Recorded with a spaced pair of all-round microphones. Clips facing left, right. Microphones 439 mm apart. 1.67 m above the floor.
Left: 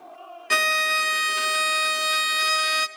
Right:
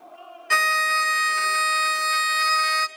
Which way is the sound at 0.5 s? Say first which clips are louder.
Left 2 dB; 50° left (ahead or behind).